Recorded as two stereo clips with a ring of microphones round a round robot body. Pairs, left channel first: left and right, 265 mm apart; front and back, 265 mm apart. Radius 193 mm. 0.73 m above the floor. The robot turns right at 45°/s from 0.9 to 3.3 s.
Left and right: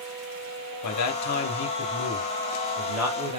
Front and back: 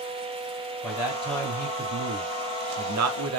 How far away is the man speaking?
About 1.5 m.